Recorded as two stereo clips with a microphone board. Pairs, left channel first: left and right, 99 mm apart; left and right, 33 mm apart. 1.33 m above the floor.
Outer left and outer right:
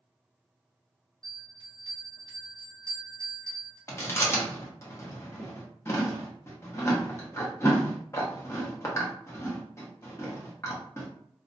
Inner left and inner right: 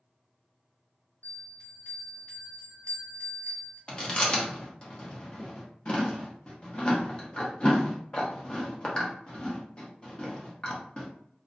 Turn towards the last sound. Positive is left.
turn(degrees=30)  # may be behind; listen again after turning